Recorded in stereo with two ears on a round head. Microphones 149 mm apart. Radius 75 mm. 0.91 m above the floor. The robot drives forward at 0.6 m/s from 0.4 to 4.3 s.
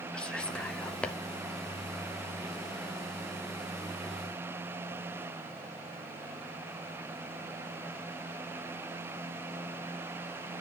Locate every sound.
0.1 s whispering: 5° left (ahead or behind), 2.5 m; by 1.2 s 10° left (ahead or behind), 2 m